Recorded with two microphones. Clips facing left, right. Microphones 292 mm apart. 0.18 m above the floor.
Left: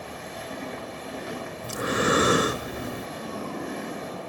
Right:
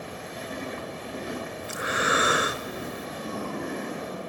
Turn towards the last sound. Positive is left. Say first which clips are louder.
# left 7 dB
turn(degrees=40)  # may be behind; listen again after turning